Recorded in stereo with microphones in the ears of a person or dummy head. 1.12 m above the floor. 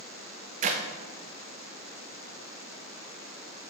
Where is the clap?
40° right (ahead or behind), 0.7 m.